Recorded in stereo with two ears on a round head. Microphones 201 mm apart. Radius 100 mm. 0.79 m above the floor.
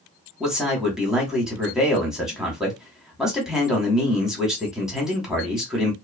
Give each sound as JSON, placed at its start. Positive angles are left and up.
{"t": 0.4, "sound": "a man speaking", "side_deg": 0, "distance_m": 1.2}